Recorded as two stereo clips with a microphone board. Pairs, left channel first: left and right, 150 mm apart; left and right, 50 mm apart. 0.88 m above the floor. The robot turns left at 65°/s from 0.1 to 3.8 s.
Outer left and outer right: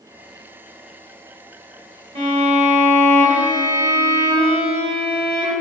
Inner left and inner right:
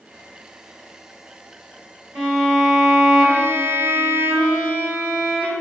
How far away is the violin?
About 1.9 m.